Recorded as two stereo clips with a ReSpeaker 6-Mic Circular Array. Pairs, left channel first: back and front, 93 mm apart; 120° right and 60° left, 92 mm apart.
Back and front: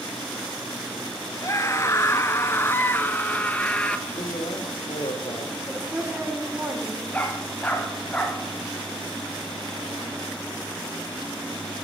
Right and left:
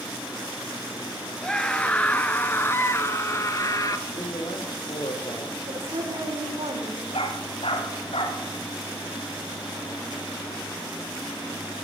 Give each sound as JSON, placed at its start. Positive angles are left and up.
{"t": 1.4, "sound": "a scream", "azimuth_deg": 165, "distance_m": 2.0}
{"t": 4.1, "sound": "a man speaking", "azimuth_deg": -160, "distance_m": 7.5}
{"t": 5.7, "sound": "a woman speaking", "azimuth_deg": 75, "distance_m": 9.5}
{"t": 7.1, "sound": "a dog barking", "azimuth_deg": -105, "distance_m": 6.5}